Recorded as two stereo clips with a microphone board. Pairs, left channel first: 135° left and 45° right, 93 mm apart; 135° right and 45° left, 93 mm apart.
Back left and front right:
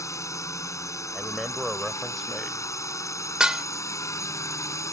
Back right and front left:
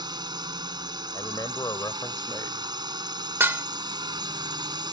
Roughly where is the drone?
Left.